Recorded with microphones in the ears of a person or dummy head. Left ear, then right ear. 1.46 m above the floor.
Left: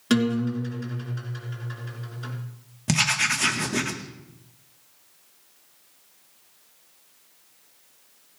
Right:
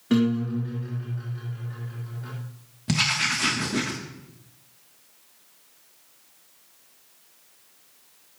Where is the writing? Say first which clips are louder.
Left 1 dB; 25° left (ahead or behind), 1.6 m.